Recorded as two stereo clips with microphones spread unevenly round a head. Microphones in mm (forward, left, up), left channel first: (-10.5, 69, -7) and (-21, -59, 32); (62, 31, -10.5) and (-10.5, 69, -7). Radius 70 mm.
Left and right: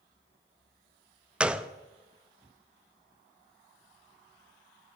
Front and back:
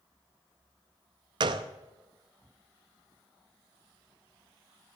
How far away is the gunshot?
About 0.6 m.